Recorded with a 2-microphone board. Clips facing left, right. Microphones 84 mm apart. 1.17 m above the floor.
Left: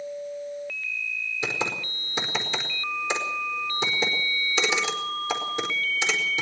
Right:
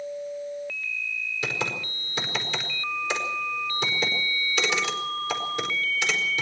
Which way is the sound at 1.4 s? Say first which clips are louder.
Left 1 dB; 20° left (ahead or behind).